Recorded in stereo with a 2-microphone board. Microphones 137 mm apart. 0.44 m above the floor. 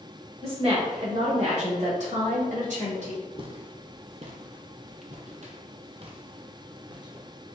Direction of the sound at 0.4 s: 45° right (ahead or behind).